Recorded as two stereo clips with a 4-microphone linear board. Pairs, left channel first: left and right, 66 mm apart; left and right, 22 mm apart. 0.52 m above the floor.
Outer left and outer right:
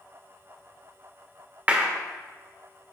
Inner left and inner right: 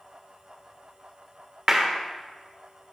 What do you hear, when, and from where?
1.7 s a clap: 20° right (ahead or behind), 1.1 m